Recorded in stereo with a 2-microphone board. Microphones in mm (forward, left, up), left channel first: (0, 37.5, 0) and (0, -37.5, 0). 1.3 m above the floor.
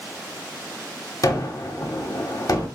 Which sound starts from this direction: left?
A gunshot, at 1.2 s.